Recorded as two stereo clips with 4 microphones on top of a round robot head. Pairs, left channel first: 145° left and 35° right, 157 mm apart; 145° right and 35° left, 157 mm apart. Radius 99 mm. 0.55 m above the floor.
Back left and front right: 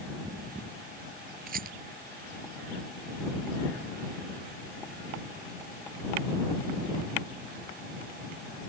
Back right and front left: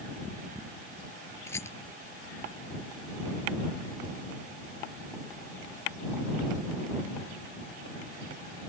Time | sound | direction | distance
1.5 | a rattle | 70° right | ?